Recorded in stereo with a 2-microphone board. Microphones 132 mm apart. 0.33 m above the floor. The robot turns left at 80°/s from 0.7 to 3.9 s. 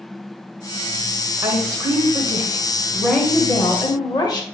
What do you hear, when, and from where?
1.4 s a woman speaking: 45° right, 1.0 m; by 4.4 s 115° left, 1.0 m